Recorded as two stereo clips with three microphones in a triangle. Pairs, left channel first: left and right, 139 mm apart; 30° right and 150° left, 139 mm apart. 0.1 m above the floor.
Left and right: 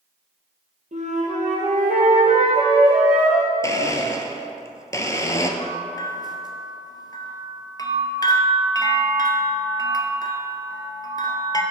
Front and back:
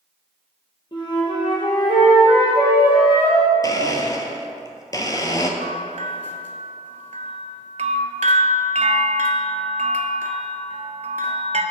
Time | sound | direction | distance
0.9 | a flute | 80° right | 1.9 m
3.6 | a blender | 25° left | 0.6 m
5.6 | a bell | 145° left | 0.5 m